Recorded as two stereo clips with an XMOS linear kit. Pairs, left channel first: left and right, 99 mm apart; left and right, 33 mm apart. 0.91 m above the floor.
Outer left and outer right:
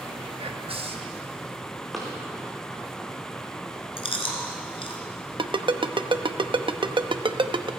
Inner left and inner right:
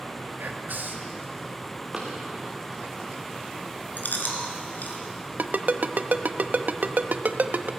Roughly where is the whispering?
Right.